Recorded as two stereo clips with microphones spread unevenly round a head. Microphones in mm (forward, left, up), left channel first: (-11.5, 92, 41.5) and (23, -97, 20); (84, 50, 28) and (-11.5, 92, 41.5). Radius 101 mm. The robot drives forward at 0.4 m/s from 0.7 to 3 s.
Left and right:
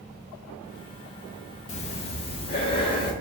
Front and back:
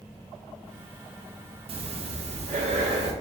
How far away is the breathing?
About 0.7 m.